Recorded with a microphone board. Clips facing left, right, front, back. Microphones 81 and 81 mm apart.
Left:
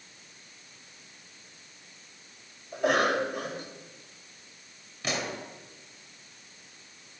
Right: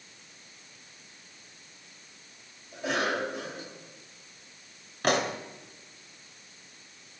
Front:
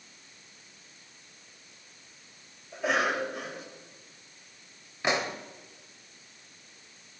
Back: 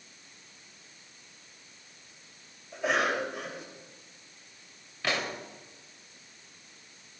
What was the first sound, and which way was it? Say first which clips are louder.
A cough: left 5 dB, even; 90° left.